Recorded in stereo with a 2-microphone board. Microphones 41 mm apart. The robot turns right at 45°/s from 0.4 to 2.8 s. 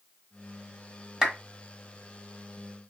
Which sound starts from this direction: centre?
A clap, at 1.2 s.